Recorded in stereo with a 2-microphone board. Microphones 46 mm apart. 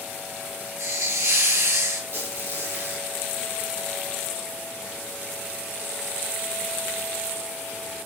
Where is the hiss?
80° right, 8 m.